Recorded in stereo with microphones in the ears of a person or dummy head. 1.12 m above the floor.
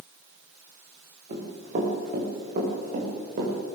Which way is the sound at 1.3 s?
40° right (ahead or behind).